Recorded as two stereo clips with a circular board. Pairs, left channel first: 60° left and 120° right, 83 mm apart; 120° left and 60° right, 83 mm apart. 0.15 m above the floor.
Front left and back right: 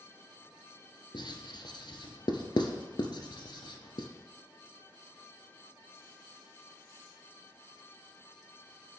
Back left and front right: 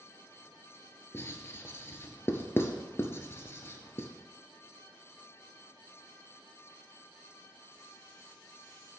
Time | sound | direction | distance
1.1 | writing | 60° left | 0.9 m